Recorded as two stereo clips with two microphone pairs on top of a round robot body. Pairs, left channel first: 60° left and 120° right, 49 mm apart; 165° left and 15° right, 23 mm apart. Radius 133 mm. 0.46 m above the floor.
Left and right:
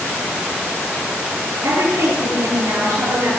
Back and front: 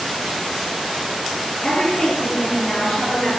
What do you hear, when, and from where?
1.6 s a woman speaking: 150° right, 9 m; by 3.3 s 145° right, 9.5 m